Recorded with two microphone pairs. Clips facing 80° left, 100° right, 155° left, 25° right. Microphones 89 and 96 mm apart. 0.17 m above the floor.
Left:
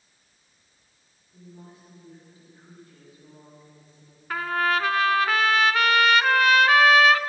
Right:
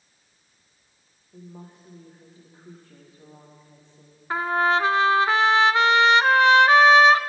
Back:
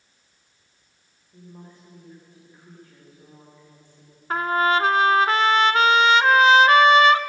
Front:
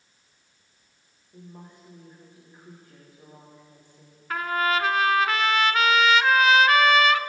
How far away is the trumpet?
About 0.7 m.